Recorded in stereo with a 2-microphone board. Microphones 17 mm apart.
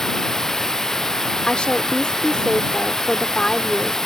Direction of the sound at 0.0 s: 30° left (ahead or behind).